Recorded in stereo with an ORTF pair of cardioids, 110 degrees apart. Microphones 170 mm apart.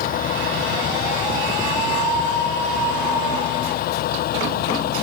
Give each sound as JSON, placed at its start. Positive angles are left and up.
{"t": 0.0, "sound": "a vehicle", "azimuth_deg": 60}